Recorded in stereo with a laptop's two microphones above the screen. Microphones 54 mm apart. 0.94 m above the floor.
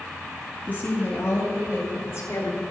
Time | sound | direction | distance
0.7 | a woman speaking | 35° left (ahead or behind) | 2.5 m